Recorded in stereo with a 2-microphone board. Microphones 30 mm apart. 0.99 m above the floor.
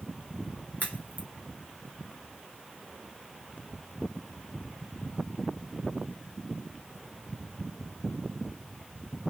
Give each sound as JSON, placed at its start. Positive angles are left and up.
{"t": 0.8, "sound": "a crack", "side_deg": 60, "distance_m": 0.9}